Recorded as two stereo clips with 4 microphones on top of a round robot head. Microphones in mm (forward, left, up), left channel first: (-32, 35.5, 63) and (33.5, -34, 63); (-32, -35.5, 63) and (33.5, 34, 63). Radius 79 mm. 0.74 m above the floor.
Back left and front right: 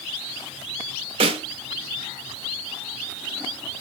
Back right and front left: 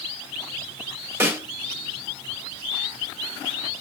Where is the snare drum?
20° right, 1.2 m.